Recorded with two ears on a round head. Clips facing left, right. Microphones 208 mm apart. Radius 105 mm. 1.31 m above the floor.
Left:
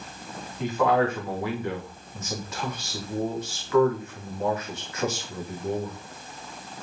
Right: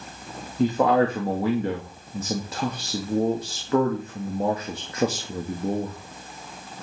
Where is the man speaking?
30° right (ahead or behind), 2.5 m.